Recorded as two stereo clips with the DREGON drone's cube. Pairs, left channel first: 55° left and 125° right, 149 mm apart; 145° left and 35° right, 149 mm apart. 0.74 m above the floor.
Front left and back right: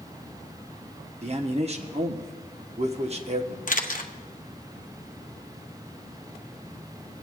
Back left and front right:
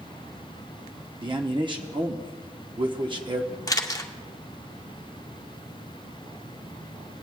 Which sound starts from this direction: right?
A man speaking, at 1.2 s.